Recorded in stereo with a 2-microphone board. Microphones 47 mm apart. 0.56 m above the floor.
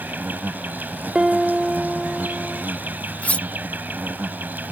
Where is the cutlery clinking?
30° left (ahead or behind).